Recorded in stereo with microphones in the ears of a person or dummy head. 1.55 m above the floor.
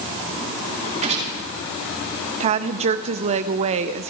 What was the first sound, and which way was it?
A gunshot, 35° right (ahead or behind).